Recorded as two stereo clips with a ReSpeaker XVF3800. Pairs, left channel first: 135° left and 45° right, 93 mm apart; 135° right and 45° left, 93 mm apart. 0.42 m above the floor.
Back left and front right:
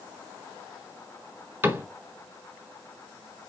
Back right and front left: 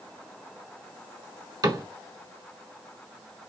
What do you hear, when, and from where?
1.6 s a cupboard door: 15° left, 1.4 m